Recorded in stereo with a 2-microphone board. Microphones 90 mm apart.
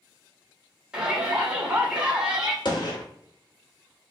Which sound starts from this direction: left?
A gunshot, at 2.6 s.